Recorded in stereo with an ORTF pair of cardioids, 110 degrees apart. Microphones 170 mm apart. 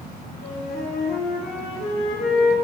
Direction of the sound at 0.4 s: 65° left.